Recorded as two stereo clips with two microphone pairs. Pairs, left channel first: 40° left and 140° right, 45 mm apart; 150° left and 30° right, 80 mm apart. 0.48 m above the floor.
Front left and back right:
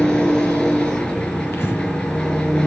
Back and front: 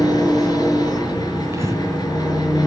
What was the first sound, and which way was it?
An engine running, 115° left.